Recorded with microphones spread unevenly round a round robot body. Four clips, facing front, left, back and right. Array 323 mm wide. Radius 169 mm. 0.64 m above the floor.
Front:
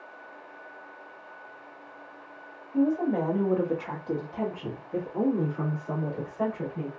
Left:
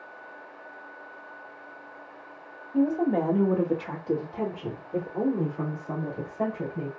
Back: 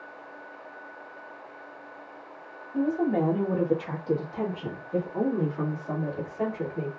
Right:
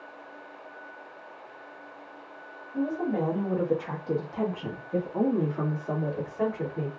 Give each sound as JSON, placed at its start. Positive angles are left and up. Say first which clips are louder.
{"t": 2.7, "sound": "a woman speaking", "louder": "left 5 dB, even", "azimuth_deg": 95, "distance_m": 1.1}